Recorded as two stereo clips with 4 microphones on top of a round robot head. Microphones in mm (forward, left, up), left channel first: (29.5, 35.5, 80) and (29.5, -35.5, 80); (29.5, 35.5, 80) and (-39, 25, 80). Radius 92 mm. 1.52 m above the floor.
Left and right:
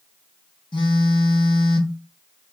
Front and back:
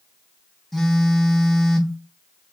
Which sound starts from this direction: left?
A phone buzzing, at 0.7 s.